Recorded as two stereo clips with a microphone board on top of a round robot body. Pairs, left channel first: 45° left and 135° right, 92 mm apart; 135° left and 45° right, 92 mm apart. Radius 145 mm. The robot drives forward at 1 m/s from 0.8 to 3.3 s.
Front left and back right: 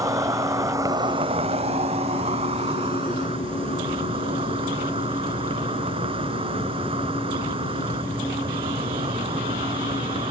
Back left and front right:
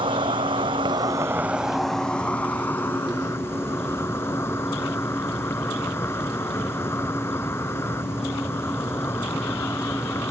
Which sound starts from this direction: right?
An insect, at 0.0 s.